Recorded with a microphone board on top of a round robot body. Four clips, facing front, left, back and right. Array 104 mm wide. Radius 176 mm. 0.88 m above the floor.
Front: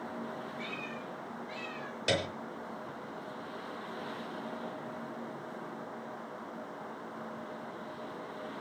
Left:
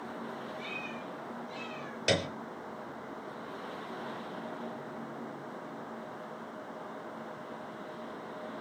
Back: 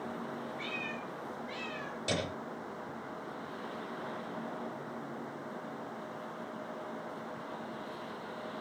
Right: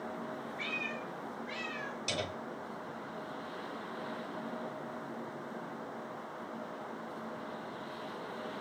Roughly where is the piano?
Left.